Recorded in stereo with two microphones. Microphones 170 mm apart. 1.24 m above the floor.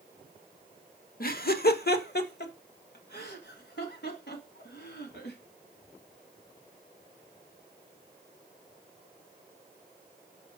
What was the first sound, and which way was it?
Laughter, 60° left (ahead or behind).